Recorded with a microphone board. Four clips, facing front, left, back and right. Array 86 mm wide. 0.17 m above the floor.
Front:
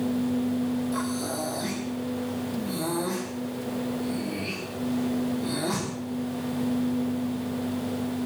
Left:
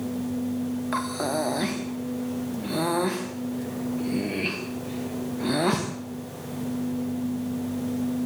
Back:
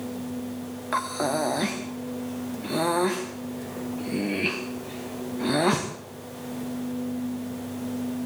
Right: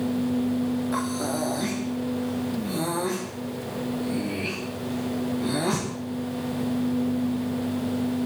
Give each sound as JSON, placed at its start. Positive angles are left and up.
{"t": 0.9, "sound": "breathing", "azimuth_deg": 150, "distance_m": 5.5}